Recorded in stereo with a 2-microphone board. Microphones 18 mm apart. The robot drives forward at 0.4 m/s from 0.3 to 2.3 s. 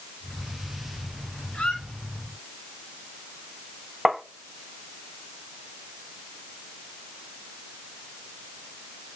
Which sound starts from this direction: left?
A squeak, at 1.5 s.